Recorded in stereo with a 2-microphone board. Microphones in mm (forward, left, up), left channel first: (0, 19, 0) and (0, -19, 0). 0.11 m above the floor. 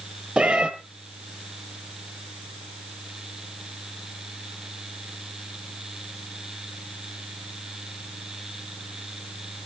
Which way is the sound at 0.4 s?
30° right (ahead or behind).